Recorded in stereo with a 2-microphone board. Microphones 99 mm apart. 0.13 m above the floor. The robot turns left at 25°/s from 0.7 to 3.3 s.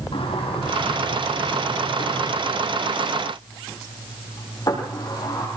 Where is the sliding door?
65° left (ahead or behind), 6 m; by 5.5 s 40° left (ahead or behind), 6 m.